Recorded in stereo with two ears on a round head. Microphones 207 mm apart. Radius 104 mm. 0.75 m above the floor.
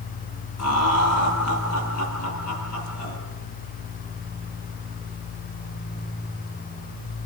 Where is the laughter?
80° left, 7 m.